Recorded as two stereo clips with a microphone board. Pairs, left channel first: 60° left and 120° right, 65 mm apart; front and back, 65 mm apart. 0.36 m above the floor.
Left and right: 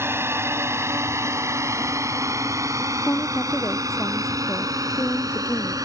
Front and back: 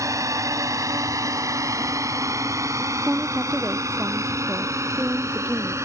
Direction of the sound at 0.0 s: 160° right.